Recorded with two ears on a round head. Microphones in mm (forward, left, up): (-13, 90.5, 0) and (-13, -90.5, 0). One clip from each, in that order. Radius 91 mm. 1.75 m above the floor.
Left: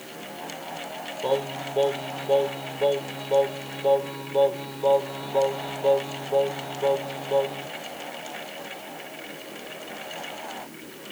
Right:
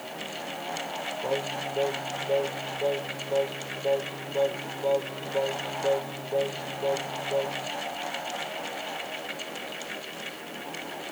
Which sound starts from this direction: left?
Singing, at 1.2 s.